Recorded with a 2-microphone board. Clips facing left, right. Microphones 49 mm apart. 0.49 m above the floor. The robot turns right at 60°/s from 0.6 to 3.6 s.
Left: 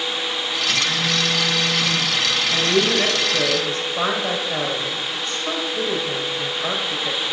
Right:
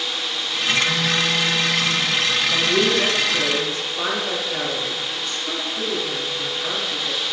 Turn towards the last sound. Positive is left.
turn(degrees=50)  # may be behind; listen again after turning